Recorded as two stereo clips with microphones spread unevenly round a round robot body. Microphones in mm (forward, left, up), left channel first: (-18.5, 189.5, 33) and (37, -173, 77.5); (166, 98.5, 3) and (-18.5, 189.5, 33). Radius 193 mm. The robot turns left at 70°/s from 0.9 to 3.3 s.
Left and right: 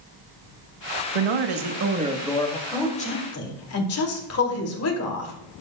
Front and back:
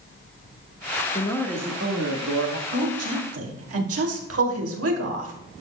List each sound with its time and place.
1.1 s a man speaking: 95° right, 1.2 m; by 2.6 s 165° left, 1.2 m
2.7 s a woman speaking: 170° right, 2.5 m; by 5.3 s 150° left, 2.5 m